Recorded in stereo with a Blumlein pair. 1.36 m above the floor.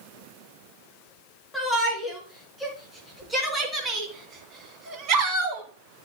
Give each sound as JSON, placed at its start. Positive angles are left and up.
{"t": 1.5, "sound": "a shout", "azimuth_deg": 0, "distance_m": 3.5}